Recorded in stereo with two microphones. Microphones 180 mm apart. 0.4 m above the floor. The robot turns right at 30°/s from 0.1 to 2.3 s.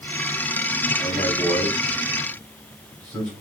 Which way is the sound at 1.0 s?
40° left (ahead or behind).